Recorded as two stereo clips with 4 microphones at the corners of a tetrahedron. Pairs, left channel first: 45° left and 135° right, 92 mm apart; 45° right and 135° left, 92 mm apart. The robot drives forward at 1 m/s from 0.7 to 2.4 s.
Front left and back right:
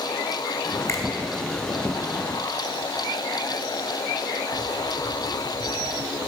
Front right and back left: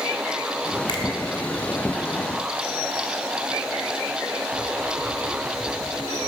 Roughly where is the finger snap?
Ahead.